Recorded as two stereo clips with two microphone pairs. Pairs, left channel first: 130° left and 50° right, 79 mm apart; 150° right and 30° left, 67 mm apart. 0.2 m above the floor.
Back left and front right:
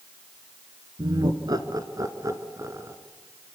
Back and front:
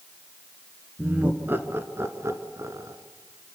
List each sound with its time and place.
1.0 s laughter: 30° right, 2 m; by 3.0 s 5° left, 2 m